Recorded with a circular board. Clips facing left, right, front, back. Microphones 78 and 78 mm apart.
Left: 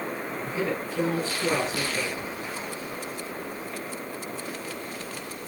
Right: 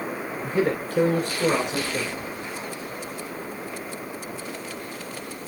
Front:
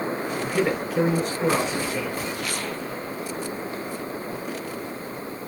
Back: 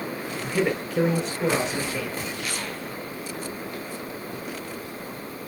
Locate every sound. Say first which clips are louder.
0.4 s a man speaking: right 6 dB, even; 90° right, 2 m; by 2.2 s 85° right, 3 m